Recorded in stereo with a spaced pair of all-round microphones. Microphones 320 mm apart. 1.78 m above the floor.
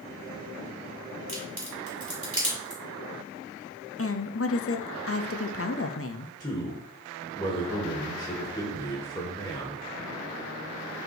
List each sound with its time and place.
1.3 s a crack: 45° right (ahead or behind), 3.5 m
4.0 s a woman speaking: 45° left (ahead or behind), 0.6 m
6.4 s a man speaking: 20° left (ahead or behind), 1.4 m